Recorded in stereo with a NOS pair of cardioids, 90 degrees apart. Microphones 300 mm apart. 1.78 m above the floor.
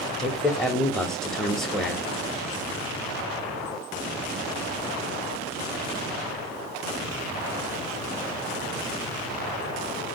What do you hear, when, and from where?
0.2 s a man speaking: straight ahead, 0.8 m